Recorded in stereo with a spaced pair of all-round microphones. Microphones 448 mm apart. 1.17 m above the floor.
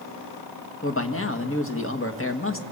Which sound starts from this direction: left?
A man speaking, at 0.8 s.